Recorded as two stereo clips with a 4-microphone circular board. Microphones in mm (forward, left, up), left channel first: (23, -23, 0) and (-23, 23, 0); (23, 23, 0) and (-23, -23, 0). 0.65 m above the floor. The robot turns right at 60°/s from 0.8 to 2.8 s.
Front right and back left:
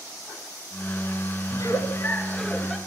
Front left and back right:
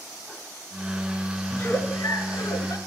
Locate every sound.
1.5 s a giggle: 20° right, 1.5 m; by 2.8 s 55° left, 1.5 m